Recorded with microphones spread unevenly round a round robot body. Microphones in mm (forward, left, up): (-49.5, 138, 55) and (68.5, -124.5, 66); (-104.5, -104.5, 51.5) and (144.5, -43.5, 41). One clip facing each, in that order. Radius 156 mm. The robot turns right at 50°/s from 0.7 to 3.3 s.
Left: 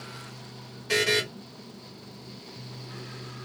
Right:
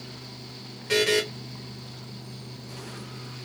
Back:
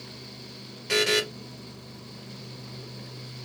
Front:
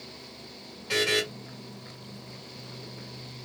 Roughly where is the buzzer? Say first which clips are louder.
Right 4 dB, back 2 dB; behind right.